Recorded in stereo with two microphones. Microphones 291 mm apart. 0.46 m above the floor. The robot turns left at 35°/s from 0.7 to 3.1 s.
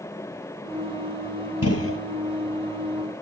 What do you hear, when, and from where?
1.6 s a gunshot: 60° left (ahead or behind), 1.8 m; by 2.0 s 45° left (ahead or behind), 1.8 m